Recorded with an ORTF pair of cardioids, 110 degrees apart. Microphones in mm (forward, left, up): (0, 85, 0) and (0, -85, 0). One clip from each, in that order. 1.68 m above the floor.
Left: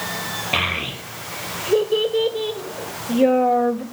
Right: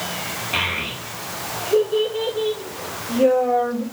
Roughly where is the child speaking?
Ahead left.